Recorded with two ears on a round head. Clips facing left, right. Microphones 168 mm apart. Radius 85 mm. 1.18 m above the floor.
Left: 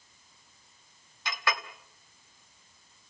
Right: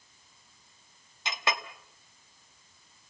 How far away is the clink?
About 1.2 m.